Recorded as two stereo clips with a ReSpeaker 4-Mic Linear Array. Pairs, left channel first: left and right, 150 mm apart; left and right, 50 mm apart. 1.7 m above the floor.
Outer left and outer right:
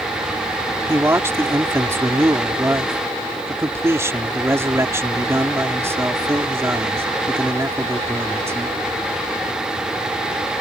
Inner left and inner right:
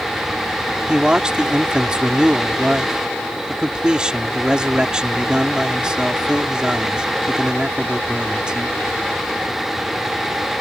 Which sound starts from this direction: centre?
A man speaking, at 0.9 s.